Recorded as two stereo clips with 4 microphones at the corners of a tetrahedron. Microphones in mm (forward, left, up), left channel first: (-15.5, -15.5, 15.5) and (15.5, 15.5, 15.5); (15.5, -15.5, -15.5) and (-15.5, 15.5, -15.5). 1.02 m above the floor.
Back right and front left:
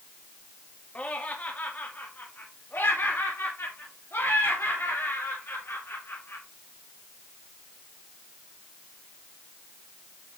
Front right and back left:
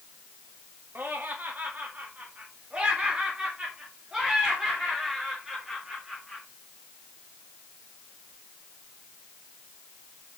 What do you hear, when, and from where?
0.9 s laughter: 170° left, 1.8 m; by 6.4 s 140° right, 3.5 m